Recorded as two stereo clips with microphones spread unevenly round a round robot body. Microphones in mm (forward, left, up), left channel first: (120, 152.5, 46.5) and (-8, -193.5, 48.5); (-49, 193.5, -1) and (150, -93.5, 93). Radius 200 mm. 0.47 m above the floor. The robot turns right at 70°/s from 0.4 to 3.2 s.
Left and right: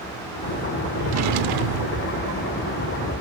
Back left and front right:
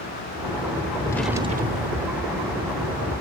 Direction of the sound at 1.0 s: 170° right.